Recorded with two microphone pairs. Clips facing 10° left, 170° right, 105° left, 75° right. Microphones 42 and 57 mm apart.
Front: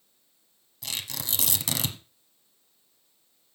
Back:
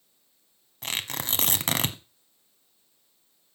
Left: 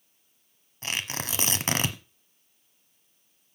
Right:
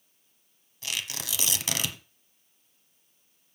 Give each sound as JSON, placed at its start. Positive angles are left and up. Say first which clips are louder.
{"t": 0.8, "sound": "tearing paper", "louder": "back 4 dB, left 3 dB", "azimuth_deg": 150, "distance_m": 1.0}